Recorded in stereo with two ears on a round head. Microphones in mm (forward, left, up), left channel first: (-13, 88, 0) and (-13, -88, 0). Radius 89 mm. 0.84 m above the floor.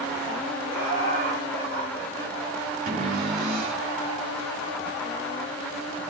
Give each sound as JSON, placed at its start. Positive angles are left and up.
{"t": 0.7, "sound": "laughter", "side_deg": -45, "distance_m": 3.5}
{"t": 2.9, "sound": "a cupboard door", "side_deg": -45, "distance_m": 5.0}